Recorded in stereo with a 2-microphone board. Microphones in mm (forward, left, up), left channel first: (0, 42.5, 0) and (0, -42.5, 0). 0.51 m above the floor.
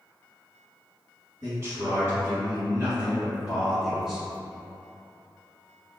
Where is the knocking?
No knocking in this recording.